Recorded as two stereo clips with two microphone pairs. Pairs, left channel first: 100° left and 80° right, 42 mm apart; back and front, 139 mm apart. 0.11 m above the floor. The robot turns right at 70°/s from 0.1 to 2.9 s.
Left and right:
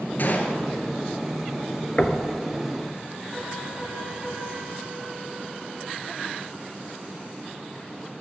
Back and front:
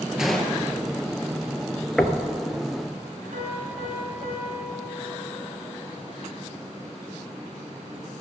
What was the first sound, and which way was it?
A gunshot, 85° left.